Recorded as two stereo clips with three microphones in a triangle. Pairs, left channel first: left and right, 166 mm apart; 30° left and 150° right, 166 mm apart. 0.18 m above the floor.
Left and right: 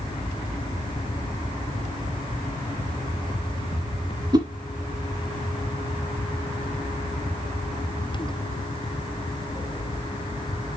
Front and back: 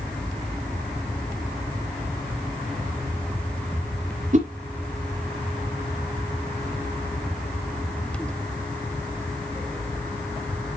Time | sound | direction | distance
4.3 | a whoosh | 145° right | 2 m